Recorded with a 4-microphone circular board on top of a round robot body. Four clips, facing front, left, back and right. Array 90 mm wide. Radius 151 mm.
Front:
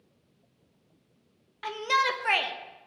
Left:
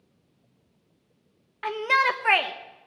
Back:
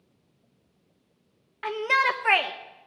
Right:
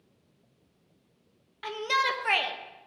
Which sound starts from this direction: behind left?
A shout, at 1.6 s.